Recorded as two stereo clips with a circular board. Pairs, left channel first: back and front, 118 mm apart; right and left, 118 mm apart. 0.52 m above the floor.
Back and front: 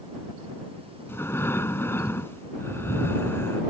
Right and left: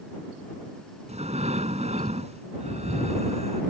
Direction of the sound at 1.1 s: 110° left.